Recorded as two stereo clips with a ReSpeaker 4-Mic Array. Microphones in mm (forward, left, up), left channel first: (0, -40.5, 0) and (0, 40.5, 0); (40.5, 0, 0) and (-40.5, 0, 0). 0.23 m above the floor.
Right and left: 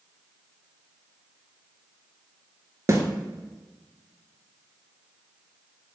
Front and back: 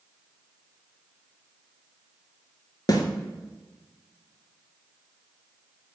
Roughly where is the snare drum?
Ahead left.